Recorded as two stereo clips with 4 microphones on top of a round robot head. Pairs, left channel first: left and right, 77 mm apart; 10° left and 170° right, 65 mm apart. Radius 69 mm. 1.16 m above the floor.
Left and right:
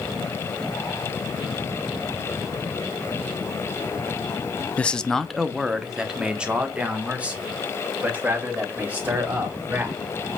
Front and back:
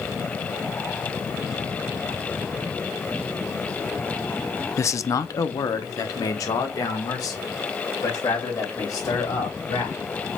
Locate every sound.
4.8 s a man speaking: 25° left, 0.5 m; by 9.9 s 20° right, 3 m